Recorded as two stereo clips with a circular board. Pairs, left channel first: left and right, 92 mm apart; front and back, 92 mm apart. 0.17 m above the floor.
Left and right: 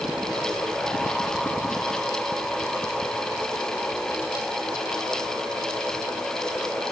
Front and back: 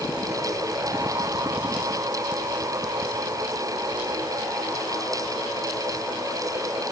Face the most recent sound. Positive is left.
No sound to turn to.